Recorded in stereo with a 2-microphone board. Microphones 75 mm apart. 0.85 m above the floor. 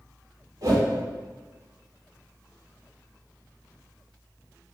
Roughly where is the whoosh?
Right.